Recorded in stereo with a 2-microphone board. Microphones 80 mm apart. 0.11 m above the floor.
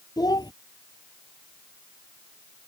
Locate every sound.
0.2 s a child speaking: 55° left (ahead or behind)